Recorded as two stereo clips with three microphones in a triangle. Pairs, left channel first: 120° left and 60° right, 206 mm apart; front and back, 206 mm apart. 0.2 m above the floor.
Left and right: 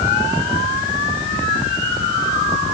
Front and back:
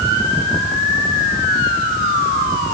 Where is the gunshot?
I don't hear a gunshot.